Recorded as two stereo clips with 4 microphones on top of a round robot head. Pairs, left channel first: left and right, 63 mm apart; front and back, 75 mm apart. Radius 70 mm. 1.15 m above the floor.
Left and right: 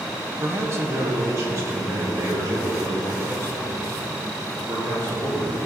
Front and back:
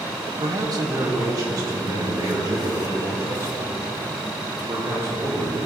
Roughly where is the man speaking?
Behind right.